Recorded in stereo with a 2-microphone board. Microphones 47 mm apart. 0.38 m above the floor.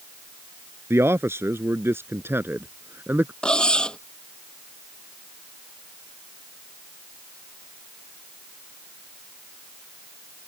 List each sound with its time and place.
0.9 s a man speaking: 70° right (ahead or behind); by 3.3 s 50° right (ahead or behind)
3.4 s cutlery clinking: 20° left (ahead or behind)